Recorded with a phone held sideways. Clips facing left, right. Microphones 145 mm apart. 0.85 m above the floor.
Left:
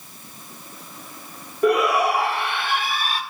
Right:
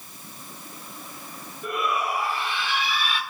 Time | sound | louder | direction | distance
1.6 | a shout | left 9 dB | 80° left | 1.7 m